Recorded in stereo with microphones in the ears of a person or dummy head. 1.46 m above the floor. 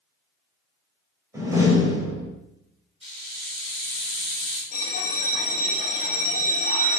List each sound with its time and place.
1.3 s a door slam: 20° right (ahead or behind), 4 m
3.0 s a hiss: 5° right (ahead or behind), 5.5 m
4.7 s a bell: 45° left (ahead or behind), 2.5 m